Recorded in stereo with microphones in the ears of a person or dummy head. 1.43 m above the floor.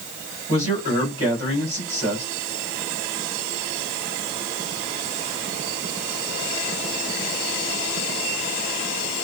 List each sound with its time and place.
0.5 s a man speaking: 25° right (ahead or behind), 4 m